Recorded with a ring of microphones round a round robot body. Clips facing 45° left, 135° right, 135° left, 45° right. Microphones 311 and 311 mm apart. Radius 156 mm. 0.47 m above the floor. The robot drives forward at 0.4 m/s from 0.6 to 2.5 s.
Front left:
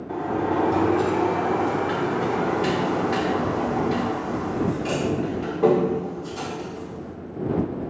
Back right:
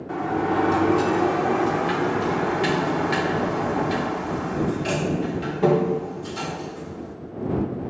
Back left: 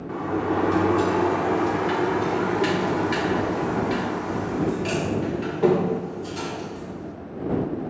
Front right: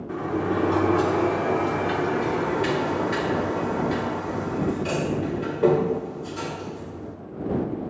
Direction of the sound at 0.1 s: 140° right.